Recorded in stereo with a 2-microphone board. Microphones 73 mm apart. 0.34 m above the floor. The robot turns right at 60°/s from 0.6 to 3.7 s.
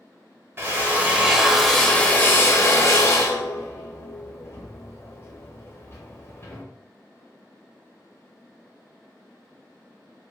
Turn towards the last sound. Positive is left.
turn(degrees=35)  # may be behind; listen again after turning